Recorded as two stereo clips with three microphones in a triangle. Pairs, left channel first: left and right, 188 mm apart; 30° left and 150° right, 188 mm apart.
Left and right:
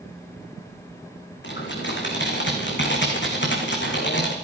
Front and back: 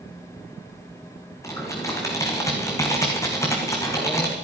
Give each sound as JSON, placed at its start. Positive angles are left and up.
{"t": 1.4, "sound": "typing on a keyboard", "azimuth_deg": 105, "distance_m": 3.0}